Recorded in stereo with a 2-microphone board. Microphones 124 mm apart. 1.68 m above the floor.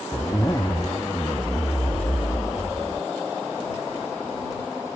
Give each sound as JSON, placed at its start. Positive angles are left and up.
{"t": 0.1, "sound": "a zipper", "side_deg": 30}